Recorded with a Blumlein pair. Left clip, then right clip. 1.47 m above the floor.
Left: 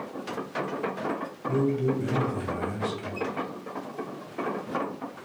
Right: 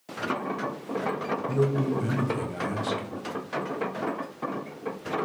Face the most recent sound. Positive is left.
turn(degrees=-15)